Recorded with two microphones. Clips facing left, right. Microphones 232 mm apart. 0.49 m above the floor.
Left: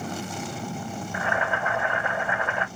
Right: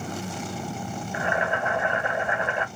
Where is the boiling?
20° right (ahead or behind), 2 m.